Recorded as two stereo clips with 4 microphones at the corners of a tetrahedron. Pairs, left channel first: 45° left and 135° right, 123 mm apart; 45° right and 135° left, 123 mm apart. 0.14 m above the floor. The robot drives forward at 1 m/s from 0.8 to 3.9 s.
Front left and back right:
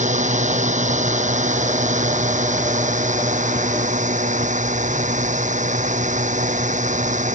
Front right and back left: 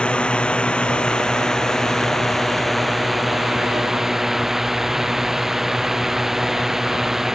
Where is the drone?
125° right; by 7.3 s 140° right.